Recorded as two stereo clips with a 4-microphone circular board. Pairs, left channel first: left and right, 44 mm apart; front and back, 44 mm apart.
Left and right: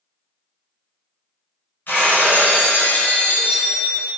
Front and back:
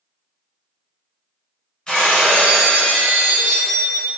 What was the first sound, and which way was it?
Breaking glass, 65° left.